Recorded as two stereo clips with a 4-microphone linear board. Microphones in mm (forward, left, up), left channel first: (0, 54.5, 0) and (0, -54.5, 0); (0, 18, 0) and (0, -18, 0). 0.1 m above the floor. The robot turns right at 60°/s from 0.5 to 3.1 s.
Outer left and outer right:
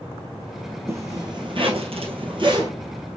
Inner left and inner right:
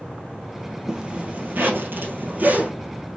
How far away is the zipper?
About 1.5 m.